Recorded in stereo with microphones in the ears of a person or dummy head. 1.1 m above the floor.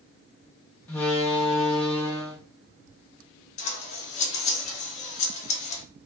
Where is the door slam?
10° left (ahead or behind), 0.6 m.